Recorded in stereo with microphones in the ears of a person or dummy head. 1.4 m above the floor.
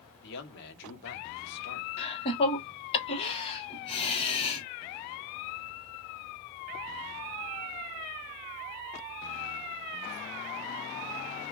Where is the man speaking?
55° left (ahead or behind), 1.2 m.